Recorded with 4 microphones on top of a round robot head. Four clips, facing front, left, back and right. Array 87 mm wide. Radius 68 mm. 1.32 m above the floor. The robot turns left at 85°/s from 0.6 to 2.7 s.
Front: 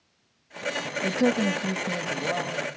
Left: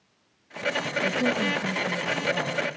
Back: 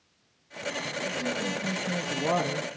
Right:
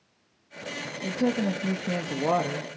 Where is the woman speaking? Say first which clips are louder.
Right 1 dB, front 10 dB; straight ahead, 2 m; by 2.7 s 140° right, 2 m.